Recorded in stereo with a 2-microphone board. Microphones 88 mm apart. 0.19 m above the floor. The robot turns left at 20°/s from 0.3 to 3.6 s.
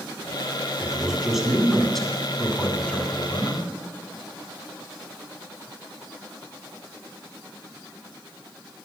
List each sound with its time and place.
0.8 s a man speaking: 160° right, 1.2 m; by 3.7 s 140° left, 1.2 m